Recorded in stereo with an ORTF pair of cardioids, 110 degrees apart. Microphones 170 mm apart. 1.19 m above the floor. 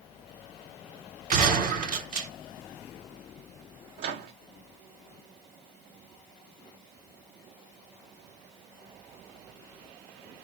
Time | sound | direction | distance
1.3 | a gunshot | 55° right | 3 m
4.0 | a microwave | 65° right | 1.7 m